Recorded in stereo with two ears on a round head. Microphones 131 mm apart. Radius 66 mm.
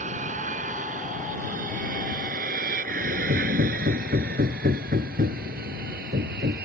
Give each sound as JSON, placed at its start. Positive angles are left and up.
{"t": 0.0, "sound": "an aircraft", "side_deg": -50}
{"t": 3.3, "sound": "hammering", "side_deg": -60}